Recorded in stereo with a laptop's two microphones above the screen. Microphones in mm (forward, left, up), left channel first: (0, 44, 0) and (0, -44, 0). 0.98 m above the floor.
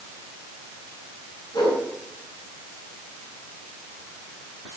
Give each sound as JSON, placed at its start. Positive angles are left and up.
{"t": 1.5, "sound": "a whoosh", "side_deg": 45, "distance_m": 7.5}